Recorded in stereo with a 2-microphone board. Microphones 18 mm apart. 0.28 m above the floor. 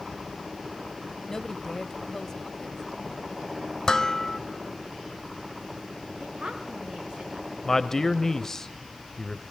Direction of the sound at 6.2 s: 60° right (ahead or behind).